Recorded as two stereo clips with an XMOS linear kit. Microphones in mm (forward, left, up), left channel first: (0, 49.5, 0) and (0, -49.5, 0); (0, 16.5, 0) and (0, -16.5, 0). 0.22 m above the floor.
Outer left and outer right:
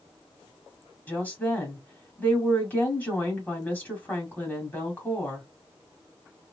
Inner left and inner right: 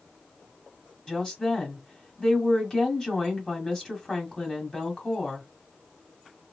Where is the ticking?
No ticking in this recording.